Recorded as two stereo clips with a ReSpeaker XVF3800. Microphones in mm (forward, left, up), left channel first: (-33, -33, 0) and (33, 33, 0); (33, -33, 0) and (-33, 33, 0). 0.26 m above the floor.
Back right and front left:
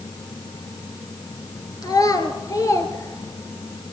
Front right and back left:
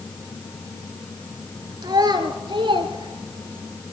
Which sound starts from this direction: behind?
A child speaking, at 1.8 s.